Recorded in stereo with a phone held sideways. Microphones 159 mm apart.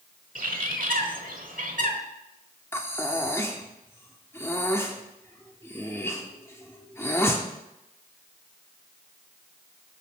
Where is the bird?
60° right (ahead or behind), 1.0 m.